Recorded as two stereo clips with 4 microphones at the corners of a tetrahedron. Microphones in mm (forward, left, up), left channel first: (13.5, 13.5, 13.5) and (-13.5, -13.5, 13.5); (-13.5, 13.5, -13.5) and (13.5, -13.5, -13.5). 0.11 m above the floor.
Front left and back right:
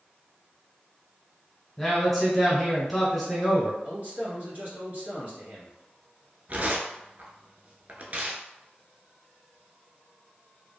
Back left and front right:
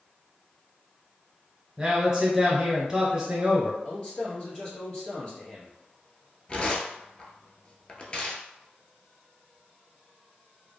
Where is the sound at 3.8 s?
175° right, 1.5 m.